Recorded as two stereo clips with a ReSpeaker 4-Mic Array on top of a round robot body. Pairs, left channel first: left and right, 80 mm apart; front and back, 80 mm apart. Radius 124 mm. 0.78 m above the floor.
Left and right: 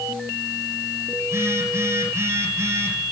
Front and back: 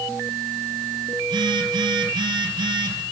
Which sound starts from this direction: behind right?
A phone buzzing, at 1.2 s.